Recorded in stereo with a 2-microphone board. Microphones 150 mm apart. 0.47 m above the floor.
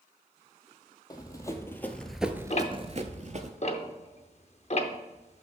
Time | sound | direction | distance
1.1 | running footsteps | 25° left (ahead or behind) | 1.2 m
2.5 | ticking | 45° left (ahead or behind) | 0.7 m